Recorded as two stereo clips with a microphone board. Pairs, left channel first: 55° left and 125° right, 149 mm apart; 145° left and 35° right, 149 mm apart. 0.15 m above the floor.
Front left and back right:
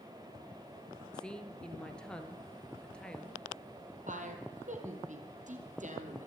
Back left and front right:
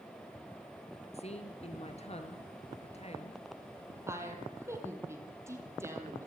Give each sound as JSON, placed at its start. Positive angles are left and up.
{"t": 1.1, "sound": "a woman speaking", "azimuth_deg": 140, "distance_m": 2.0}
{"t": 4.1, "sound": "a woman speaking", "azimuth_deg": -105, "distance_m": 4.0}